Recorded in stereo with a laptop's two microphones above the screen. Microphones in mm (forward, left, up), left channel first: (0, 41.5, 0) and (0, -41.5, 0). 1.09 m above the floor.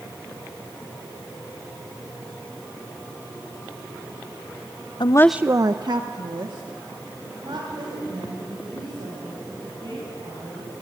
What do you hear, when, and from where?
5.0 s a woman speaking: 60° left (ahead or behind), 0.5 m; by 10.7 s 70° right (ahead or behind), 8.5 m